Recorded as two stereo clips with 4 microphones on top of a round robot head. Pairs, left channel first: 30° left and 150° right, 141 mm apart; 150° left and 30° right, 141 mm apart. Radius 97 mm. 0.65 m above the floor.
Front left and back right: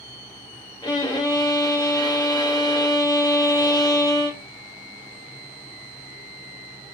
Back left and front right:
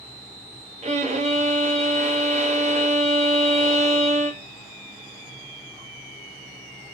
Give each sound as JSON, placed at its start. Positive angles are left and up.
{"t": 0.8, "sound": "a violin", "azimuth_deg": -25, "distance_m": 1.0}